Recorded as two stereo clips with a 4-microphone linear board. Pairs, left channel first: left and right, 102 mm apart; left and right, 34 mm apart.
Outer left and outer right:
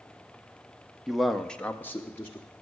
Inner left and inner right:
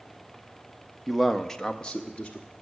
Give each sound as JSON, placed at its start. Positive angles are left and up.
{"t": 1.1, "sound": "a man speaking", "side_deg": -5, "distance_m": 0.9}